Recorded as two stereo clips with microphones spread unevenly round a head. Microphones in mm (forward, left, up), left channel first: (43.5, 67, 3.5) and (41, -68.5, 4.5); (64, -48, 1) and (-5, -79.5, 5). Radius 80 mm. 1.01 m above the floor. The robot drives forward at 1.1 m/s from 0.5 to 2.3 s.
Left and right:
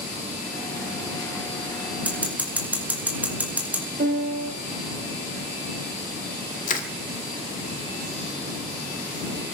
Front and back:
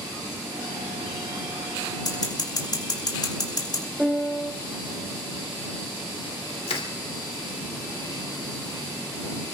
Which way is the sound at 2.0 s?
10° right.